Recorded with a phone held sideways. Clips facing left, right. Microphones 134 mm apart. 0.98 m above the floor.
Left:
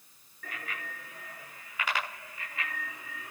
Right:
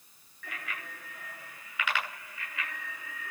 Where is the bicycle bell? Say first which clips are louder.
Left 1 dB; 40° left (ahead or behind), 9 m; by 3.3 s 35° left (ahead or behind), 8 m.